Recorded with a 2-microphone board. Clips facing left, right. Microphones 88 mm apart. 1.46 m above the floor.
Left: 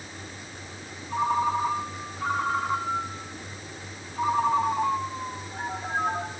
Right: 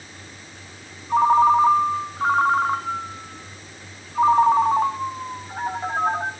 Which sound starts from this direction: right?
A ringtone, at 1.1 s.